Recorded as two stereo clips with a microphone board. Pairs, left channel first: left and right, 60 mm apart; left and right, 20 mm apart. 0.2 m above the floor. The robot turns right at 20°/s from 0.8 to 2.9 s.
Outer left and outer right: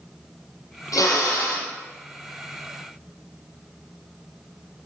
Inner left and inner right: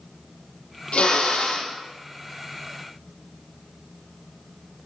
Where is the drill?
70° left (ahead or behind), 7 m; by 1.7 s 80° left, 7 m.